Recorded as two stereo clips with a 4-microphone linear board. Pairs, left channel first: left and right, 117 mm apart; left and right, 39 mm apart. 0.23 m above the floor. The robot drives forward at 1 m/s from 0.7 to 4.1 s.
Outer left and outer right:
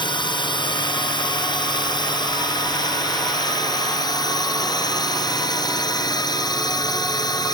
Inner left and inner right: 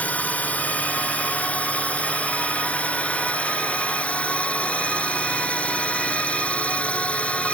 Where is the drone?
40° left (ahead or behind); by 7.5 s 35° left (ahead or behind).